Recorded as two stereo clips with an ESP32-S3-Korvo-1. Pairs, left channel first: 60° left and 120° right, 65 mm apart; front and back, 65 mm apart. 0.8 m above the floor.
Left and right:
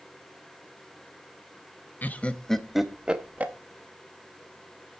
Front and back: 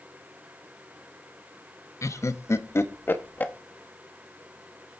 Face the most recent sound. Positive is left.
turn(degrees=-60)